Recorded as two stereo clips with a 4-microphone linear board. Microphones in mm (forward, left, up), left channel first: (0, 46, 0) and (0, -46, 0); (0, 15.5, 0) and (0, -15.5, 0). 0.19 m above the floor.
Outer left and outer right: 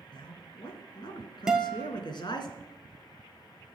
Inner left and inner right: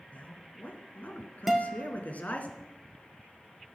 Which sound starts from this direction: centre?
A guitar, at 1.5 s.